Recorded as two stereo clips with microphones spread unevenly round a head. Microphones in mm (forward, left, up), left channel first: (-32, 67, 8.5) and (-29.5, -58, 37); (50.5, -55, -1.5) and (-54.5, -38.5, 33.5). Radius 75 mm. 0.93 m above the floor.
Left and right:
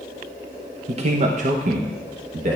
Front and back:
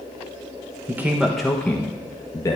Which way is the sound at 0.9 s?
105° right.